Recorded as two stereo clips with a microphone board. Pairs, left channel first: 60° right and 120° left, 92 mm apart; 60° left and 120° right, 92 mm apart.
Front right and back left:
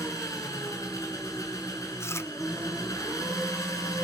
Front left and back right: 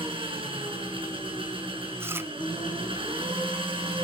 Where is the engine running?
115° right, 6 m.